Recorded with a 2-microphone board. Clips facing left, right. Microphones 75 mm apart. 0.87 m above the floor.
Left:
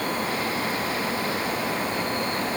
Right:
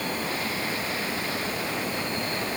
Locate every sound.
Only background noise.